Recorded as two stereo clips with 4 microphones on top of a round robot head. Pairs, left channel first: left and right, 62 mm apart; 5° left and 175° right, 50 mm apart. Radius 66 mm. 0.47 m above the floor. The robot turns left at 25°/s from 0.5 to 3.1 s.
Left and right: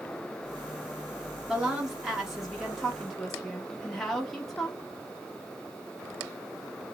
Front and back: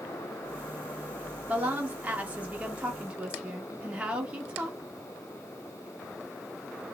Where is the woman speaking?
150° right, 0.7 m; by 4.8 s 170° left, 0.7 m.